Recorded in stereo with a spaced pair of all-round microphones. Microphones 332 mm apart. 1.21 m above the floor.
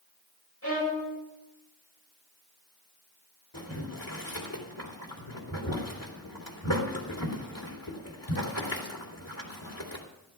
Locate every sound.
0.6 s a violin: 45° left (ahead or behind), 5.5 m
3.5 s boiling: 85° left, 3 m